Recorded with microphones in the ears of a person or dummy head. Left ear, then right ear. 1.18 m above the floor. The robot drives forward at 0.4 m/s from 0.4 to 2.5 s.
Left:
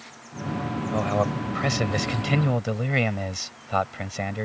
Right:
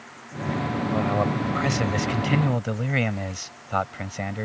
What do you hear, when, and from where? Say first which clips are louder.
0.9 s a man speaking: left 1 dB; 20° left (ahead or behind); by 4.5 s 15° left (ahead or behind)